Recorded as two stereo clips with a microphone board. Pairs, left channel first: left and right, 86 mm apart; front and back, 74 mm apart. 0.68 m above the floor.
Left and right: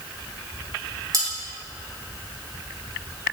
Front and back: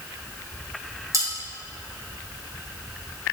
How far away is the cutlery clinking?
About 3 m.